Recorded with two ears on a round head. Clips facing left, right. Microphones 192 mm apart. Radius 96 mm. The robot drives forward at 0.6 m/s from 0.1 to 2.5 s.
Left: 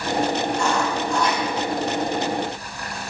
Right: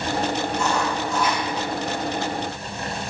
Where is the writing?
5° right (ahead or behind), 5.5 m.